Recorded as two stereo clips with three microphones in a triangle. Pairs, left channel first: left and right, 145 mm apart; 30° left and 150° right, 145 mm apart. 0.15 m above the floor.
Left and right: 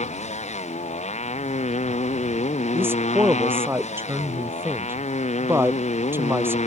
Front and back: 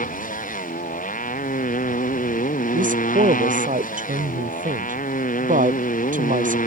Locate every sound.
0.0 s a motorcycle: 50° left
2.7 s a man speaking: 165° right